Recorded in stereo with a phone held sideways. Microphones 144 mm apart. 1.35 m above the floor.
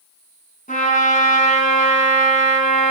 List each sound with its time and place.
0.7 s a trumpet: 70° left (ahead or behind), 4.5 m